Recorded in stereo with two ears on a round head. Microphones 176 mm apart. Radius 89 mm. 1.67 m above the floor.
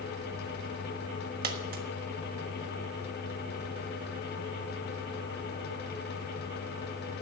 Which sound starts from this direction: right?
A dropped coin, at 1.4 s.